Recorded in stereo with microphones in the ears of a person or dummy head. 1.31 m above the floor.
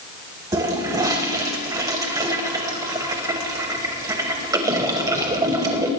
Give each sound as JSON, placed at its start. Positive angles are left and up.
{"t": 0.5, "sound": "a toilet flushing", "side_deg": -20, "distance_m": 1.5}